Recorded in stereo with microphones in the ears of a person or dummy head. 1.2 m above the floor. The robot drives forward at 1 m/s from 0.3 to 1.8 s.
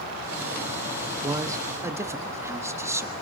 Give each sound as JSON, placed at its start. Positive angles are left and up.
{"t": 1.2, "sound": "a man speaking", "side_deg": -20, "distance_m": 0.9}